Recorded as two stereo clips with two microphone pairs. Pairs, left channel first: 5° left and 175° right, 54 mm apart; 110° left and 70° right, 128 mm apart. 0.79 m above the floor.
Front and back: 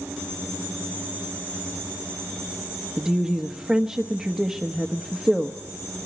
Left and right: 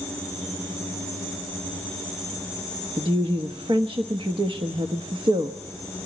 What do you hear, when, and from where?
3.0 s a woman speaking: 100° right, 1.0 m